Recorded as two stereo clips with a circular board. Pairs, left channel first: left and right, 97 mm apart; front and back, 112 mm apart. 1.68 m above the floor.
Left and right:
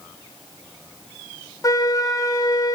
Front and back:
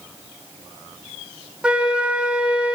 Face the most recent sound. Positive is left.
turn(degrees=105)